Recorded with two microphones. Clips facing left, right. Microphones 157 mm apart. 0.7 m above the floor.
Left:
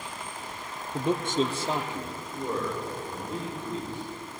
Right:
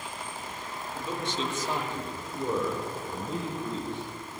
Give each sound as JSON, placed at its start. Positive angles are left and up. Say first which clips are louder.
{"t": 0.9, "sound": "a man speaking", "louder": "left 8 dB", "side_deg": 65, "distance_m": 1.2}